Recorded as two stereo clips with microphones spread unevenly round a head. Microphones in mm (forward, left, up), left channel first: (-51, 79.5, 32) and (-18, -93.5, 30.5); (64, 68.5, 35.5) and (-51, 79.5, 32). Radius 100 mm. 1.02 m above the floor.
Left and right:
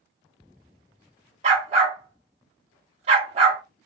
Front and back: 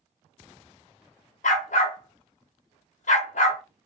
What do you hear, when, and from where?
1.4 s a dog barking: 20° right, 0.8 m